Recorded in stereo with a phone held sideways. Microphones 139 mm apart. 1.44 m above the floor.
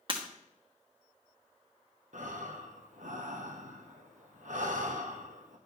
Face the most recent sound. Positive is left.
turn(degrees=-70)  # may be behind; listen again after turning